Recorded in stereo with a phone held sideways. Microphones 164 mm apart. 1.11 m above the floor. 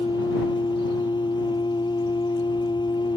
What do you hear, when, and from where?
0.0 s a machine running: 25° left (ahead or behind)